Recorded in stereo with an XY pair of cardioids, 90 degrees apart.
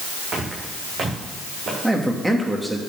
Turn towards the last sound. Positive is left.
turn(degrees=-10)